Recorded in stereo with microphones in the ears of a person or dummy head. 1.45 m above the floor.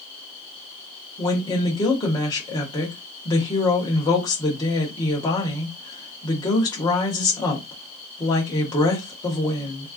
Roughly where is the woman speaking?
Centre.